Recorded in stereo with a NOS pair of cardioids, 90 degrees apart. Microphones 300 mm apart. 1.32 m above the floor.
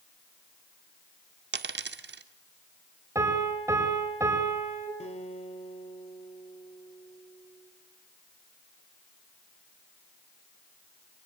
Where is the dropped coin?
35° right, 1.9 m.